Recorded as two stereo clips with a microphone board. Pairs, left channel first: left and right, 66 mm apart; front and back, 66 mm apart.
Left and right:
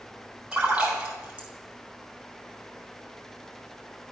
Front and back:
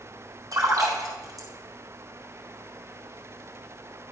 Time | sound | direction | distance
0.5 | a splash | 160° right | 3.5 m